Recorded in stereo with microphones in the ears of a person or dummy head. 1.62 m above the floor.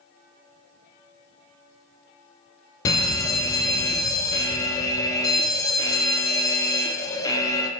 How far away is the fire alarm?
About 0.6 m.